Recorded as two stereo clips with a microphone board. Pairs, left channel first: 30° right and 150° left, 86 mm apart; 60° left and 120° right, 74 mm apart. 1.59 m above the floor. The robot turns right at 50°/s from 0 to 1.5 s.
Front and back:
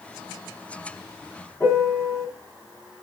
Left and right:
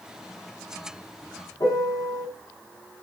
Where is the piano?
30° left, 5.5 m.